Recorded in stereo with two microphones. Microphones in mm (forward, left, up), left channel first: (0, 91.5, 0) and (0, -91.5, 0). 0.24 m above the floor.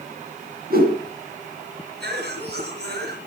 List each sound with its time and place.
0.7 s a whoosh: 55° right (ahead or behind), 2.5 m
2.0 s a cough: 65° right (ahead or behind), 4 m